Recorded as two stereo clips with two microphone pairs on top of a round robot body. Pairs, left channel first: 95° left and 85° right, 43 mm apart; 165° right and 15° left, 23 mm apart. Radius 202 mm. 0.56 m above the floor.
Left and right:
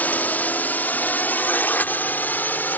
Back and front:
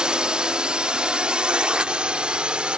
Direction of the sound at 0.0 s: 55° left.